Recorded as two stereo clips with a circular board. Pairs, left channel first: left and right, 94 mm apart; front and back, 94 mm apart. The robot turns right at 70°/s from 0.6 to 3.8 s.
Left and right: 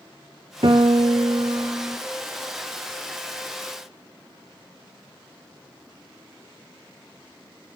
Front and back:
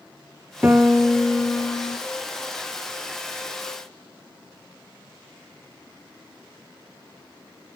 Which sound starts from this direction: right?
A piano, at 0.6 s.